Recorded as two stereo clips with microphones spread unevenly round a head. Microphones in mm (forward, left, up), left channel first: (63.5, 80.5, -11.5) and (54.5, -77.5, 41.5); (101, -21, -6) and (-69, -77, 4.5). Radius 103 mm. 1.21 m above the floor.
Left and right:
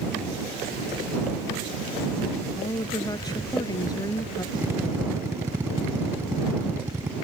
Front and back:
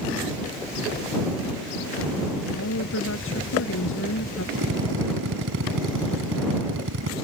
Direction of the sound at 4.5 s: 165° right.